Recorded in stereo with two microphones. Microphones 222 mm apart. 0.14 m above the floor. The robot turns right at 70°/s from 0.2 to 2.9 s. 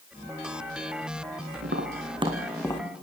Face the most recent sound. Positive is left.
turn(degrees=25)  # may be behind; listen again after turning